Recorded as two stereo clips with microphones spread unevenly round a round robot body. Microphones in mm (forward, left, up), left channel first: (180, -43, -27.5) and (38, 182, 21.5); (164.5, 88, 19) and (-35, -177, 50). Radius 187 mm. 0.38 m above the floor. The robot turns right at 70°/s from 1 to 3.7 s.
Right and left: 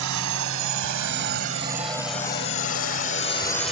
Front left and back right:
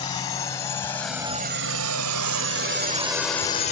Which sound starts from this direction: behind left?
A drone, at 0.0 s.